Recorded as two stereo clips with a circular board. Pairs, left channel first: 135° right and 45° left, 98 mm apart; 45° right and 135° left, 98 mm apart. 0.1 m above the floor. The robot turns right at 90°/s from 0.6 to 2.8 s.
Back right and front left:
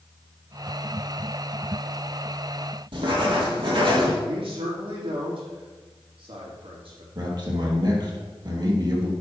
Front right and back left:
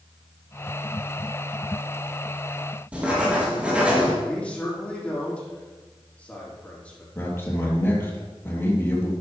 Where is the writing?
60° left, 3 m.